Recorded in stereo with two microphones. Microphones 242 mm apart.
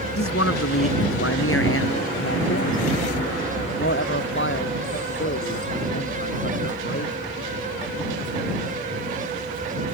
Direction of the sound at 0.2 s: 70° left (ahead or behind).